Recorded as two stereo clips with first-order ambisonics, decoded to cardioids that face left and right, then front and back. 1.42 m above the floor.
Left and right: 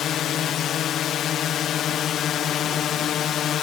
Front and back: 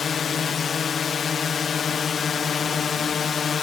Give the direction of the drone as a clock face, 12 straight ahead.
10 o'clock.